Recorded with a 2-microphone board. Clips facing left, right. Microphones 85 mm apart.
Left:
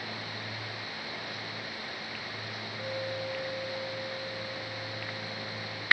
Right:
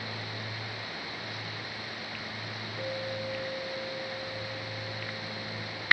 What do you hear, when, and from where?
2.8 s a clink: 80° right, 8.5 m